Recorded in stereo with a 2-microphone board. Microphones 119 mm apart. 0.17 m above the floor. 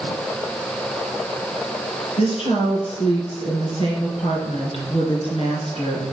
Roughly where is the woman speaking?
Left.